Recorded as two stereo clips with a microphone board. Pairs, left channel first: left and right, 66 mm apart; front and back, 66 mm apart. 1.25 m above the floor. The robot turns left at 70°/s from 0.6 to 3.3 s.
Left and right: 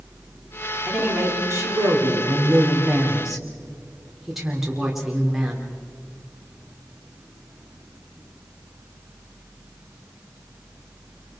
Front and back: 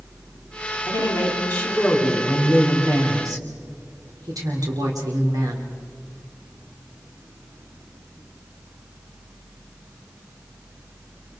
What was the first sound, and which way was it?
A woman speaking, 5° right.